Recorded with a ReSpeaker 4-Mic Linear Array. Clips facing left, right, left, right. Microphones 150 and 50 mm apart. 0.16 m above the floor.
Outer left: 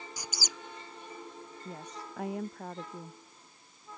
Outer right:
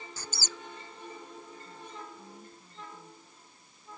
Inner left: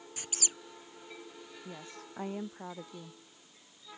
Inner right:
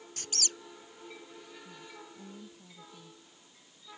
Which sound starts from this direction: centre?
A squeak, at 0.2 s.